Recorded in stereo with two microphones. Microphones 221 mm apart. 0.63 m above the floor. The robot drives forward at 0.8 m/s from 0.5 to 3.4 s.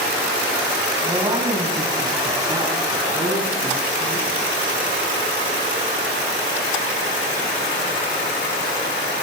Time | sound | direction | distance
1.0 | a woman speaking | 25° right (ahead or behind) | 4 m